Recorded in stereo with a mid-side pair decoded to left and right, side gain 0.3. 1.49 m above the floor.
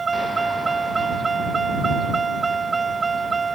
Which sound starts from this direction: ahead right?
A vehicle, at 0.0 s.